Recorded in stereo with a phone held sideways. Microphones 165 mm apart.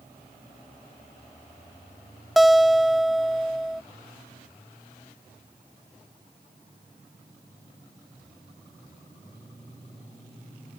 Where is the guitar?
Centre (ahead or behind).